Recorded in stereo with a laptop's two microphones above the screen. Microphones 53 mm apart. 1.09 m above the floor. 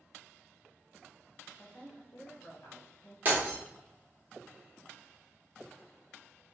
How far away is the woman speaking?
About 0.6 m.